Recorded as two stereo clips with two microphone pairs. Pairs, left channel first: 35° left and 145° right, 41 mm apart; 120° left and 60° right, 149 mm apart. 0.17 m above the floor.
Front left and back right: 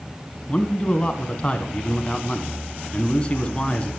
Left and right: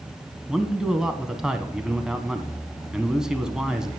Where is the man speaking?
20° left, 1.1 m.